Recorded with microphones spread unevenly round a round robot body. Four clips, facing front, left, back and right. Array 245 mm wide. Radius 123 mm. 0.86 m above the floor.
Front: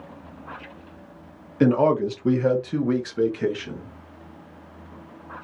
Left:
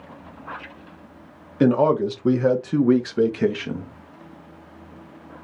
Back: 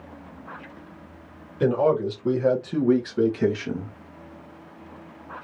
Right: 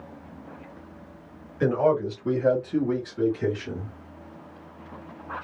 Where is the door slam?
No door slam in this recording.